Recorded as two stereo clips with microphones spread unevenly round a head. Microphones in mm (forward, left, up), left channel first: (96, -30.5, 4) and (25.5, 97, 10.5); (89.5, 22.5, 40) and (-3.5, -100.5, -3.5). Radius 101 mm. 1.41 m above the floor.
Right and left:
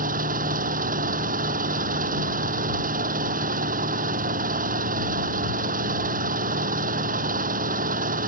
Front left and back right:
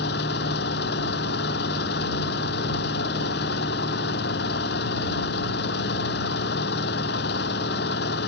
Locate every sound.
0.0 s an engine running: 95° left